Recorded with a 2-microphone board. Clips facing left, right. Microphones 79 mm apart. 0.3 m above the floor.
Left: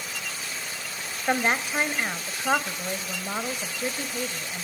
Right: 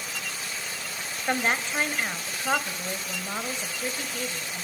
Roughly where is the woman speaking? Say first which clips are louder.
Left 2 dB; centre.